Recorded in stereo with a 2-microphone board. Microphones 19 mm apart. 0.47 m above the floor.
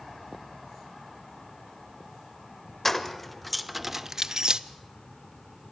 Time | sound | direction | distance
2.9 | keys jangling | 20° left (ahead or behind) | 1.1 m